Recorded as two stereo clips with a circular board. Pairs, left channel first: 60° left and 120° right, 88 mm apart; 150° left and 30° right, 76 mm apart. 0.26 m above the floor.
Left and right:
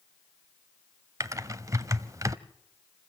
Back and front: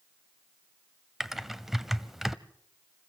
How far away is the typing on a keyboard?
About 0.6 m.